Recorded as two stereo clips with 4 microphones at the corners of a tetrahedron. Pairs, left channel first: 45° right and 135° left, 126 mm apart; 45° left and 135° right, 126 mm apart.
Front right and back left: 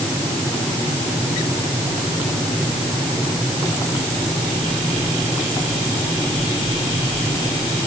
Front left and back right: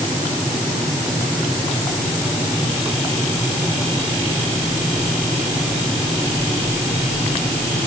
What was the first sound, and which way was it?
Only background noise.